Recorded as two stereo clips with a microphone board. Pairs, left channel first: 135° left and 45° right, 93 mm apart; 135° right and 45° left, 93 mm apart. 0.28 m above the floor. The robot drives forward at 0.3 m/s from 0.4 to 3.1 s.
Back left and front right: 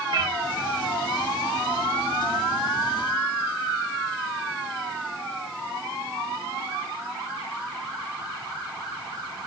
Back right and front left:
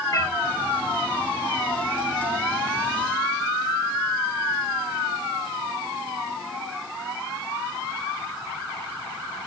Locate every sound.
0.1 s a cat meowing: 90° right, 1.8 m